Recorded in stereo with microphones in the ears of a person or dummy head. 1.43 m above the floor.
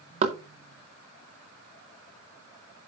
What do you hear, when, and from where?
0.2 s knocking: 30° right (ahead or behind), 0.7 m